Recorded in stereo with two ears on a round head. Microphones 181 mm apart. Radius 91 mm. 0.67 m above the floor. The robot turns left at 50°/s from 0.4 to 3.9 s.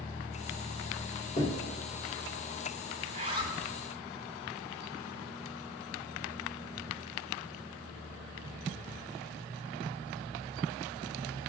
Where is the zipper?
45° right (ahead or behind), 2.5 m; by 3.6 s 20° right (ahead or behind), 2.5 m.